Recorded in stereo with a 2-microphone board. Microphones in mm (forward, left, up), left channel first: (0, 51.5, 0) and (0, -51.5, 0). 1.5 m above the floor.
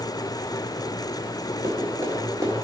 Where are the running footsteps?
30° right (ahead or behind), 1.7 m.